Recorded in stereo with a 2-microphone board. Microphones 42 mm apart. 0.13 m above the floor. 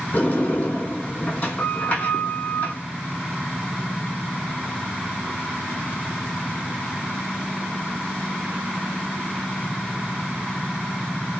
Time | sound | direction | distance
0.1 | a sliding door | 35° left (ahead or behind) | 1.3 m